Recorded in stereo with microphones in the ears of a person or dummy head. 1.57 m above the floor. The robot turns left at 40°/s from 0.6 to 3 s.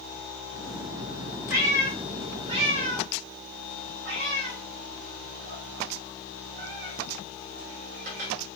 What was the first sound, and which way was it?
A cat meowing, 15° right (ahead or behind).